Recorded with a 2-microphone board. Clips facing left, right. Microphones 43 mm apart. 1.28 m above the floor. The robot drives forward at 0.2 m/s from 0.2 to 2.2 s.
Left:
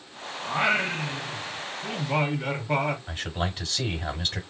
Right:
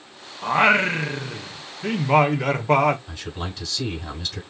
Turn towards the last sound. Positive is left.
turn(degrees=30)  # may be behind; listen again after turning